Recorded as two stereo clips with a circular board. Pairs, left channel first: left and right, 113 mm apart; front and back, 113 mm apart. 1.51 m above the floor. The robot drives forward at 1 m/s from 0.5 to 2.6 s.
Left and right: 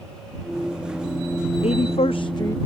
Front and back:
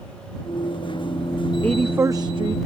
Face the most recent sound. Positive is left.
turn(degrees=145)